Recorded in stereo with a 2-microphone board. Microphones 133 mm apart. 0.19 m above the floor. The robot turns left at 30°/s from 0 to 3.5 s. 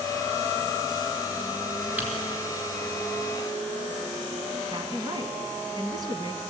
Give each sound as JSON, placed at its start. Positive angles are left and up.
{"t": 2.0, "sound": "typing on a keyboard", "side_deg": -10, "distance_m": 3.0}
{"t": 4.7, "sound": "a woman speaking", "side_deg": -30, "distance_m": 1.6}